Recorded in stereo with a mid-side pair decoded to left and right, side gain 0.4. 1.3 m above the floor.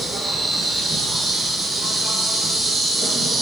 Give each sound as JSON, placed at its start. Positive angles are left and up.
{"t": 0.0, "sound": "an insect", "azimuth_deg": -30, "distance_m": 4.5}